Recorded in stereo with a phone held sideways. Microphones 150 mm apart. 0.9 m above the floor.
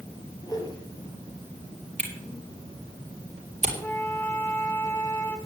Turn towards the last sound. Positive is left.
turn(degrees=15)  # may be behind; listen again after turning